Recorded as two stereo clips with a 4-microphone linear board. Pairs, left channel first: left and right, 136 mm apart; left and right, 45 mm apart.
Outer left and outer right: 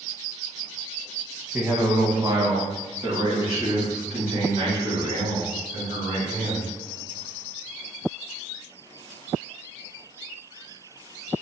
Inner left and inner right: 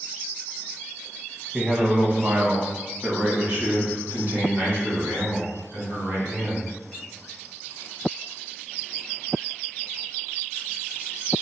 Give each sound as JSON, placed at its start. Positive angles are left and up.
{"t": 1.5, "sound": "a man speaking", "side_deg": -20, "distance_m": 0.8}